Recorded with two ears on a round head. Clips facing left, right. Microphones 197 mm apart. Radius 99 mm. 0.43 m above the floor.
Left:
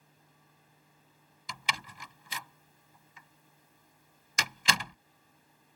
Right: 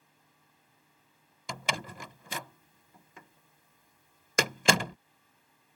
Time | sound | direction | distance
1.5 | a door slam | 45° right (ahead or behind) | ?